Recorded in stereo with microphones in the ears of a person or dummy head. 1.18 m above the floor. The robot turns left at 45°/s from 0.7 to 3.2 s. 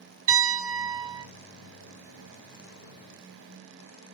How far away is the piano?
About 1.9 m.